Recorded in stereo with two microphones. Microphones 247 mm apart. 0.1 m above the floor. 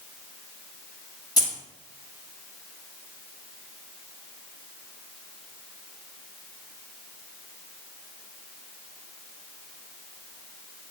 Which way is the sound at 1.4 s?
15° left (ahead or behind).